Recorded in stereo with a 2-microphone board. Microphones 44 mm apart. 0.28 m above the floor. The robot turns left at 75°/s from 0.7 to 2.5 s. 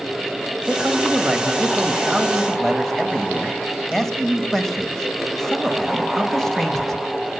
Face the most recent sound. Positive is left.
turn(degrees=5)  # may be behind; listen again after turning